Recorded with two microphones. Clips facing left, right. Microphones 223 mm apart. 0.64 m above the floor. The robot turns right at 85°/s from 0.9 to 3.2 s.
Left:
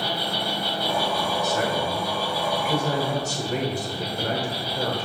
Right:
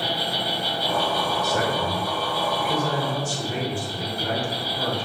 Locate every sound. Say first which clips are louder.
0.0 s an insect: even; 155° right, 1.2 m; by 5.0 s 40° left, 1.2 m
1.4 s a man speaking: even; 105° right, 1.1 m; by 5.0 s 45° left, 1.1 m